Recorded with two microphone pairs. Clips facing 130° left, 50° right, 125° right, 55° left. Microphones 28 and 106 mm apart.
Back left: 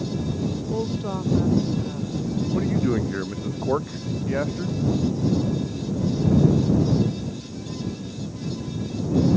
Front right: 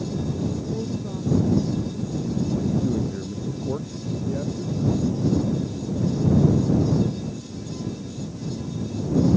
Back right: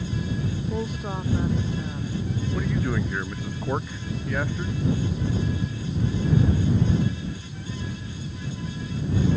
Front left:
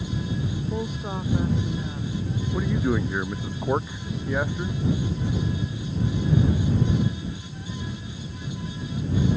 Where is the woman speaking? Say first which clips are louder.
Back left 2 dB, even; 145° left.